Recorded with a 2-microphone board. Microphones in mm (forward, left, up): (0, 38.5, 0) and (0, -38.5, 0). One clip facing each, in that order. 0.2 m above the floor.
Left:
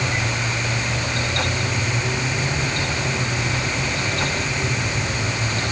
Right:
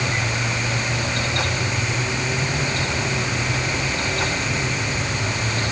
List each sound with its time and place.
Only background noise.